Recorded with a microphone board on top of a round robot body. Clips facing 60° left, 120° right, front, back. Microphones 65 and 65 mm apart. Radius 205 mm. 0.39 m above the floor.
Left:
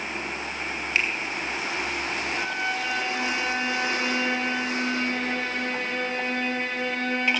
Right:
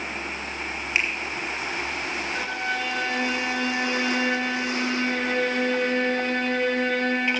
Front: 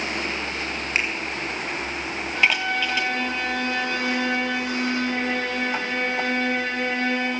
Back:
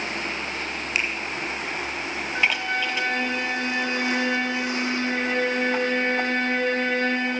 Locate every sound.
0.9 s a finger snap: 55° right, 2.5 m
2.4 s a violin: 120° right, 3 m